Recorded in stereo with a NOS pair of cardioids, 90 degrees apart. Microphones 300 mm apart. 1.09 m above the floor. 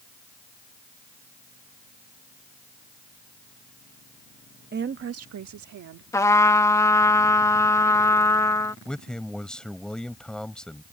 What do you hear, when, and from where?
4.7 s a woman speaking: 30° right; by 6.0 s 70° right
6.1 s a trumpet: 10° left
8.8 s a man speaking: 5° left